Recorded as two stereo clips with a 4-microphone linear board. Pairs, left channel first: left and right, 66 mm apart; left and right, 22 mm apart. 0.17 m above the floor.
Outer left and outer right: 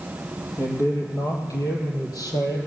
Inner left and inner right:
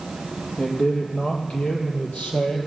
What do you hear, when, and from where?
0.6 s a man speaking: 45° left (ahead or behind), 5 m; by 2.6 s 70° left (ahead or behind), 5 m